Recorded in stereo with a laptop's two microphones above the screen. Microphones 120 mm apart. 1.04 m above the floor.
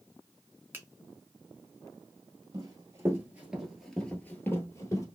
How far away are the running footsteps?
About 1.2 m.